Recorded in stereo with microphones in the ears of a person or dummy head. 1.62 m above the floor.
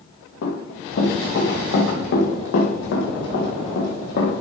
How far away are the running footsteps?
About 4.5 m.